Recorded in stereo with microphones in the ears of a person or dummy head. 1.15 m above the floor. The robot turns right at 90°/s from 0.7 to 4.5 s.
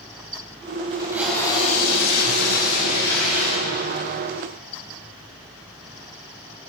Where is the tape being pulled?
35° right, 6.5 m; by 4.2 s 100° right, 6.5 m.